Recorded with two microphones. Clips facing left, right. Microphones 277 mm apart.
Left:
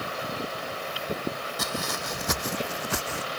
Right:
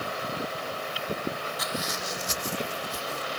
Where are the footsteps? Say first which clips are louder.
Left 4 dB; 50° left (ahead or behind); by 3.3 s 75° left (ahead or behind).